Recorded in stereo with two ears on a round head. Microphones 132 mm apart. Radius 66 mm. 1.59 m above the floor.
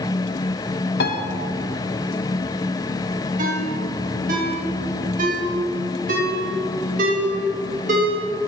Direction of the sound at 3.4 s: 60° right (ahead or behind).